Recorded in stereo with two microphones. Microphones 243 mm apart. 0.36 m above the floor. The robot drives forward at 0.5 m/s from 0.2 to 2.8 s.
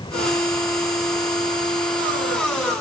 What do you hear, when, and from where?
Only background noise.